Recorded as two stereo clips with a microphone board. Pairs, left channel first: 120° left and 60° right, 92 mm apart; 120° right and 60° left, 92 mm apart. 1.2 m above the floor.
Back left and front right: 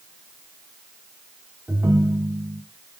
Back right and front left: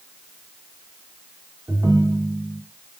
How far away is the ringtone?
About 1.4 m.